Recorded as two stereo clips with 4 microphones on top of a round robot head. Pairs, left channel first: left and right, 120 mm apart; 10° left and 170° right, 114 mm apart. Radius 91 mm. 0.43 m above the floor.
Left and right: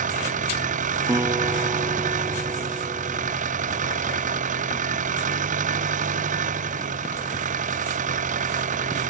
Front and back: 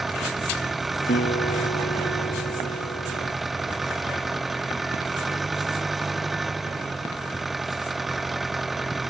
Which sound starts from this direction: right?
An engine running, at 0.0 s.